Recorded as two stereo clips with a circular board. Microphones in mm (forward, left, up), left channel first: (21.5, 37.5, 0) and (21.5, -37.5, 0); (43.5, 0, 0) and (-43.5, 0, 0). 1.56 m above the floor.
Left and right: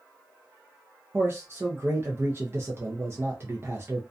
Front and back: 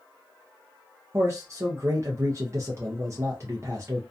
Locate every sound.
1.1 s a man speaking: 135° right, 0.6 m